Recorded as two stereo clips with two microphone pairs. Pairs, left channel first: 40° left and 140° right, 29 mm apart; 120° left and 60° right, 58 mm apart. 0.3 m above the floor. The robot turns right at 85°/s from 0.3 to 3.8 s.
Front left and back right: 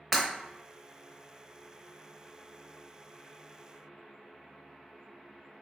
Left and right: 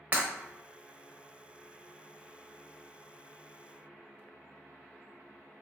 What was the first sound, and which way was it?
Breaking glass, 45° right.